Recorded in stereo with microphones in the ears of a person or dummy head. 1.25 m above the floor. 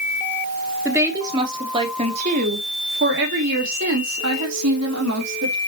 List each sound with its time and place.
0.8 s a woman speaking: 15° right (ahead or behind), 3 m; by 5.5 s 85° right, 3.5 m